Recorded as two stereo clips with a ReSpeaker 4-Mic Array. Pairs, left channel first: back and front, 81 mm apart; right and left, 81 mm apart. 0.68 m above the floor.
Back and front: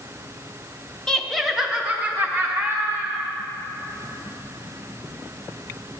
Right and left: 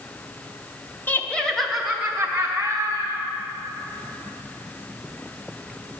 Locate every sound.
1.1 s laughter: 110° right, 0.7 m; by 3.3 s 50° left, 1.2 m